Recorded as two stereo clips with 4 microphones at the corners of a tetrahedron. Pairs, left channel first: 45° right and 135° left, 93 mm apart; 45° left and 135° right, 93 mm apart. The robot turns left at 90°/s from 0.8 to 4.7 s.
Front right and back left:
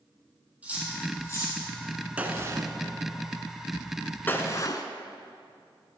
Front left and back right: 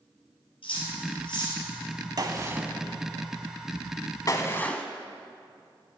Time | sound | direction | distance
0.6 | cutlery clinking | 60° left | 3 m
2.2 | a gunshot | 155° right | 0.7 m